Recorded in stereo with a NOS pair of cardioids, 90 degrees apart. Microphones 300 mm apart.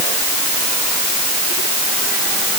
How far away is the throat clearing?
No throat clearing in this recording.